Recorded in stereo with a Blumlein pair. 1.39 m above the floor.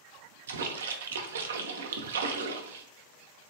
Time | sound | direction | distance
0.5 | a splash | 65° right | 0.5 m